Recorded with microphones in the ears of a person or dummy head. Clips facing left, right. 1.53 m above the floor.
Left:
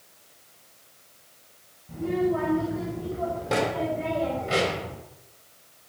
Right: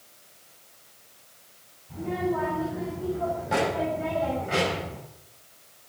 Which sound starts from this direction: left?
A child speaking, at 1.9 s.